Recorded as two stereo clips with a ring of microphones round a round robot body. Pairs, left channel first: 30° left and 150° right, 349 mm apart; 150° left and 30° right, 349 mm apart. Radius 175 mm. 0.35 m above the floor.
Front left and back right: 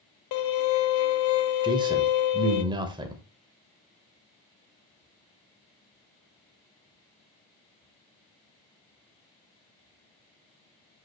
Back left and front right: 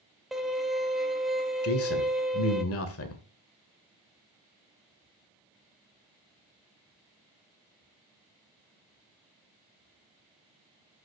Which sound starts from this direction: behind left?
A man speaking, at 1.6 s.